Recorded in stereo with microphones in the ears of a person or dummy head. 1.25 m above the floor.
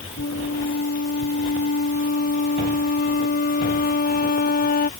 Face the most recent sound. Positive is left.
turn(degrees=45)  # may be behind; listen again after turning